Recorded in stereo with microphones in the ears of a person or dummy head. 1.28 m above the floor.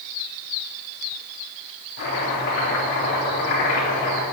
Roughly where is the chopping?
Left.